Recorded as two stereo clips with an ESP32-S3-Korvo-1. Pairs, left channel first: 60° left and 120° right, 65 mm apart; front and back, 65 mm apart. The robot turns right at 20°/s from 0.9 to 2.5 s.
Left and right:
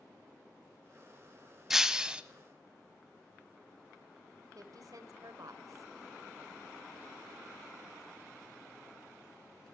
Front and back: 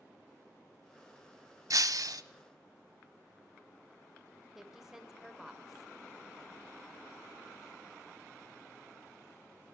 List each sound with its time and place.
1.7 s breaking glass: 155° left, 0.9 m; by 2.2 s 165° left, 0.9 m
4.5 s a woman speaking: 95° right, 2.5 m